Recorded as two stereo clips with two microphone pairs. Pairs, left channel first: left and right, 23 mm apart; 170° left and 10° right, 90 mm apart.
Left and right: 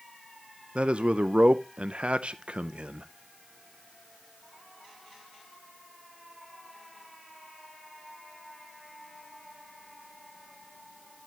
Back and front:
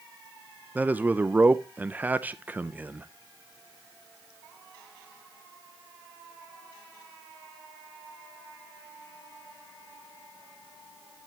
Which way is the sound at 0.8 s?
80° right.